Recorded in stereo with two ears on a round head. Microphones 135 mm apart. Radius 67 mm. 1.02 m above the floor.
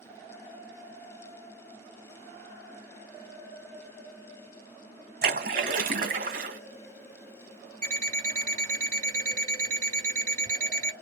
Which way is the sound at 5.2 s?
60° right (ahead or behind).